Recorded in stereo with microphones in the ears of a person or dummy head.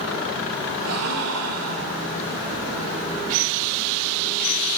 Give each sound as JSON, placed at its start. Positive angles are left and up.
{"t": 0.8, "sound": "a gasp", "side_deg": -80, "distance_m": 1.0}